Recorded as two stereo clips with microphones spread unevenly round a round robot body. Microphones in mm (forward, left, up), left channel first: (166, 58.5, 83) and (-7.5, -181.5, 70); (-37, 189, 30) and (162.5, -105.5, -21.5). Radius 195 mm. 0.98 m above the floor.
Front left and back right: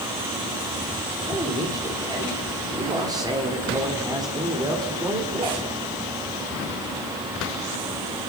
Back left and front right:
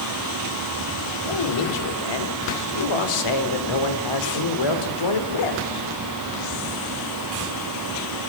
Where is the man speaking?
155° left, 3.5 m.